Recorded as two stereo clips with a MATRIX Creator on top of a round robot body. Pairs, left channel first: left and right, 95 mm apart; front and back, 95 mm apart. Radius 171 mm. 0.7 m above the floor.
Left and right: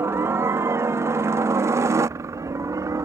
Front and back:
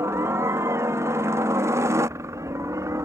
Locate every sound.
0.0 s a helicopter: 140° right; by 3.0 s 135° right